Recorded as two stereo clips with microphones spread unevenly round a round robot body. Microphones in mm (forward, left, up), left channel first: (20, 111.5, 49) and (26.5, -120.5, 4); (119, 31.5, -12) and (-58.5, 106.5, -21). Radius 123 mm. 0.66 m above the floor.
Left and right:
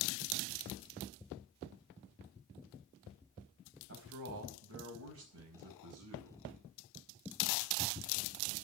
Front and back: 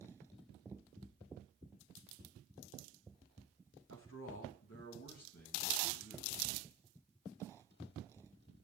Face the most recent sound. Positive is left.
turn(degrees=-85)